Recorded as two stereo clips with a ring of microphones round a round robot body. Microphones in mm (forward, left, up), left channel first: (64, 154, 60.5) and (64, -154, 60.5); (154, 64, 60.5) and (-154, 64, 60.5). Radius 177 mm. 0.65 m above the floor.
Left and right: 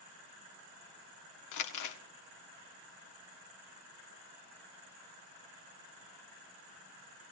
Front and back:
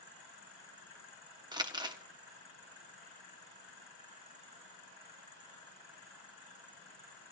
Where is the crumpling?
105° left, 1.6 m.